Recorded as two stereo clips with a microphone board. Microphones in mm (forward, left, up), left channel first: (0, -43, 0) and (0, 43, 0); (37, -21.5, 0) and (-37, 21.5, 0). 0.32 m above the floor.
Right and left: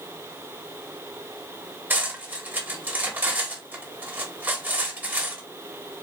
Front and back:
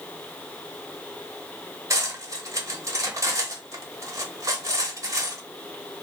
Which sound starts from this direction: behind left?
Cutlery clinking, at 1.9 s.